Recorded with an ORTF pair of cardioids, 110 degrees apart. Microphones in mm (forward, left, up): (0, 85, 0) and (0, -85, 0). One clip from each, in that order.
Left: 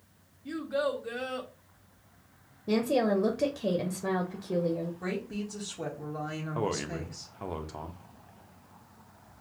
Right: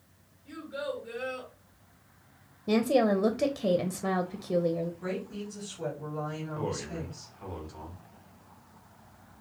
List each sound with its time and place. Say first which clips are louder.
0.5 s a child speaking: left 6 dB; 65° left, 1.5 m
2.7 s a woman speaking: right 2 dB; 10° right, 0.6 m
5.0 s a woman speaking: even; 50° left, 1.7 m
6.5 s a man speaking: left 4 dB; 50° left, 0.8 m